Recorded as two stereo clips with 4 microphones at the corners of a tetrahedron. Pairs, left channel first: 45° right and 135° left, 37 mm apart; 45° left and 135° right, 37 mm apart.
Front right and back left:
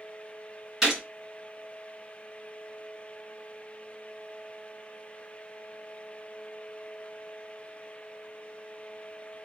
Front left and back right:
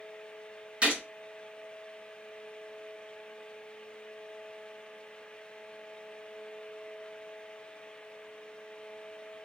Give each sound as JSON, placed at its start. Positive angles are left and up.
{"t": 0.8, "sound": "a gunshot", "azimuth_deg": -160, "distance_m": 1.8}